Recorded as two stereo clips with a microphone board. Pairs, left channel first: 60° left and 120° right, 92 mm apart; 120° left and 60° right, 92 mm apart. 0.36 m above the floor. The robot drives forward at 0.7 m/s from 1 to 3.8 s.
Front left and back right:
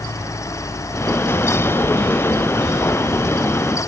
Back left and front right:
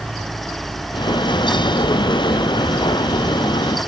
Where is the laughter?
I don't hear laughter.